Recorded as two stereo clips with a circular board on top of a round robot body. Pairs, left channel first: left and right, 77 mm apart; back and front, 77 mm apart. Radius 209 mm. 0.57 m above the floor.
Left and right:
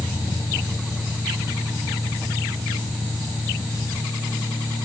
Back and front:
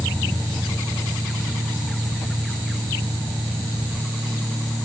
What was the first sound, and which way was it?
Only background noise.